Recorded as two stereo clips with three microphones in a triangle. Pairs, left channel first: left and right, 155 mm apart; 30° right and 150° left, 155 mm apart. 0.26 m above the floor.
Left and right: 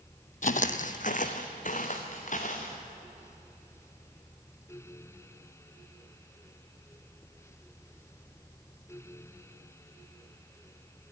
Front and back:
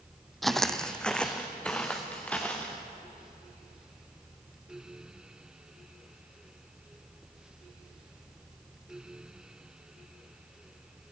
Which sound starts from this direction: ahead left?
Footsteps, at 0.4 s.